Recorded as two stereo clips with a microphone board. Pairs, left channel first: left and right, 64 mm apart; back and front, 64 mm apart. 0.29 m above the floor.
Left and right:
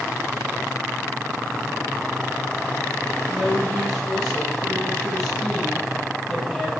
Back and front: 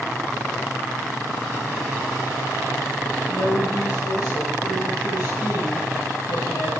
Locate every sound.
3.3 s a woman speaking: 170° left, 7.5 m